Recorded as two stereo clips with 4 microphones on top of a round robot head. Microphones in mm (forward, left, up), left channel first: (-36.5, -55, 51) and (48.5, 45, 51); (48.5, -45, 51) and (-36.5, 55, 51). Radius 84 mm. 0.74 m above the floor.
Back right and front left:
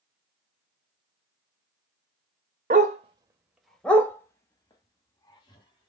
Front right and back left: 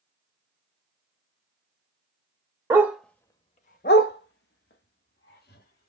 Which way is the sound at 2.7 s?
65° left.